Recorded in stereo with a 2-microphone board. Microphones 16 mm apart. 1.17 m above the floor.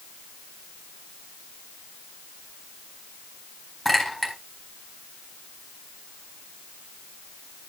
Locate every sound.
3.9 s a clink: 15° left (ahead or behind), 4 m